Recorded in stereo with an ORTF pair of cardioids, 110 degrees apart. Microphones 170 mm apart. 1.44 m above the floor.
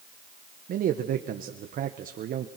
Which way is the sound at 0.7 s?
60° right.